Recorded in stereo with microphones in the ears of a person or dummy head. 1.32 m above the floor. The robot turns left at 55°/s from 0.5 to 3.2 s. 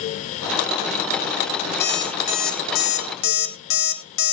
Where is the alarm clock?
165° left, 3 m; by 4.3 s 85° left, 3 m.